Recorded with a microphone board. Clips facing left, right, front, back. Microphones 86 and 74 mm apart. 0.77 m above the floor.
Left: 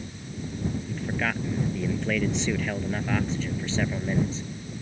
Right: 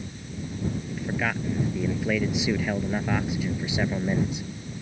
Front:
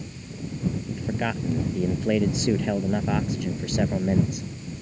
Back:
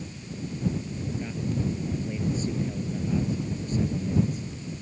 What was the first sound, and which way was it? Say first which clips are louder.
A man speaking: right 1 dB, front 5 dB; 5° right.